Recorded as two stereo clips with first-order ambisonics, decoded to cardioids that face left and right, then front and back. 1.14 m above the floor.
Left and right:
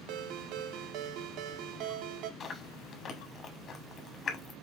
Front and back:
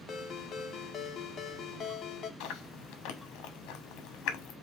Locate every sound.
0.1 s a ringtone: 60° right, 0.6 m
2.4 s chewing: 30° left, 0.9 m